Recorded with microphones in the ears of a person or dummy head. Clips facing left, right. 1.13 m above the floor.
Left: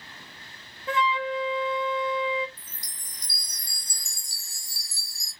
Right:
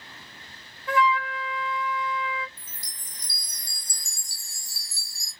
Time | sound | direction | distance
0.9 | a flute | 25° left (ahead or behind) | 0.5 m
2.6 | a chime | 20° right (ahead or behind) | 1.2 m